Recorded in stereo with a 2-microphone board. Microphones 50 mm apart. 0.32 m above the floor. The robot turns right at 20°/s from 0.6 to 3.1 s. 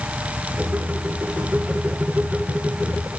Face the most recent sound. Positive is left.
No sound to turn to.